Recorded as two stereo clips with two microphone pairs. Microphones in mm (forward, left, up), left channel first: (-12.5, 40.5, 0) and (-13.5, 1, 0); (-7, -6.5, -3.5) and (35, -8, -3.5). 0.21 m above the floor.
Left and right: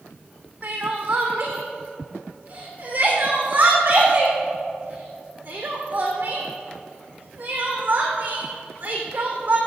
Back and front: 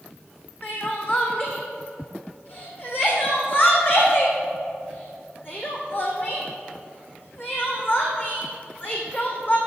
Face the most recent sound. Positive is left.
turn(degrees=-140)